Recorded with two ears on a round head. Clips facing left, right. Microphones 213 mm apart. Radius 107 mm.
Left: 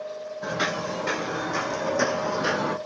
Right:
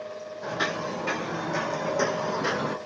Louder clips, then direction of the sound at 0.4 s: Left 2 dB; 30° left (ahead or behind).